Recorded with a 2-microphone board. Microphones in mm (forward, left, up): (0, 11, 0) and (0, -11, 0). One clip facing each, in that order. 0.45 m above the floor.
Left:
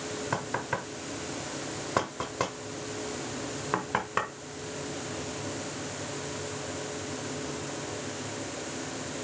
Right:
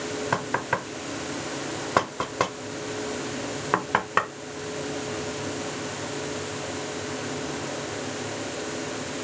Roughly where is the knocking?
Right.